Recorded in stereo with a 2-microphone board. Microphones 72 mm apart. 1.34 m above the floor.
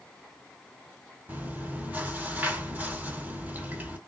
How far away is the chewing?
About 1.8 m.